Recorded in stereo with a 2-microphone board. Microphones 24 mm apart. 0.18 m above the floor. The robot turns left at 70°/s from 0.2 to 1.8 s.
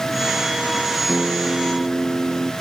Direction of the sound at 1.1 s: 45° right.